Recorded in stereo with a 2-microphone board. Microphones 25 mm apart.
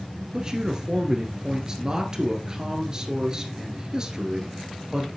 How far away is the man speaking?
About 2.0 m.